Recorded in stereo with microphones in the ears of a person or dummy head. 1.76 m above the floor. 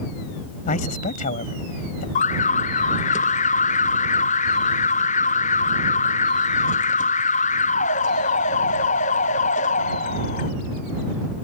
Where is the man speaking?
50° left (ahead or behind).